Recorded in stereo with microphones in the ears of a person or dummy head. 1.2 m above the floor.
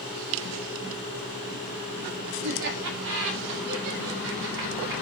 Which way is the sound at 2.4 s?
60° right (ahead or behind).